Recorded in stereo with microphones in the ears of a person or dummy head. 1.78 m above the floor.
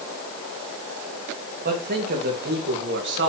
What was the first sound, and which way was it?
A man speaking, 50° right (ahead or behind).